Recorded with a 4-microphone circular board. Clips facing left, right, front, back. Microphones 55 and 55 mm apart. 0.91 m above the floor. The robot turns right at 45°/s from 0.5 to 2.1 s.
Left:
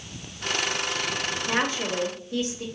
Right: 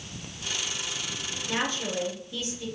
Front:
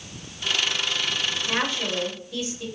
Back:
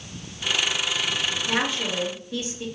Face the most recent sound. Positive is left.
turn(degrees=115)